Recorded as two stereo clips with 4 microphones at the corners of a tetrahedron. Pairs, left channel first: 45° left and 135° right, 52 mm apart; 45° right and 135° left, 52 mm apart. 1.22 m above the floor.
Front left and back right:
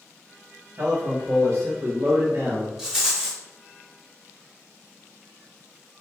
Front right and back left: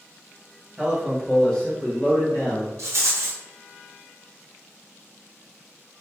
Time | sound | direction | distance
0.8 | a man speaking | 145° right | 1.6 m
2.8 | a rattle | 145° left | 1.0 m